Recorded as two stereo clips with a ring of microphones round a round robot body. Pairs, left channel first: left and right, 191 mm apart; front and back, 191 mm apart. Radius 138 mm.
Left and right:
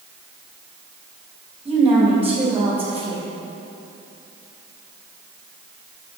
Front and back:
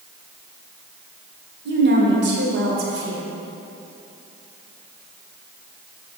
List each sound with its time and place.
1.6 s a woman speaking: 170° right, 2 m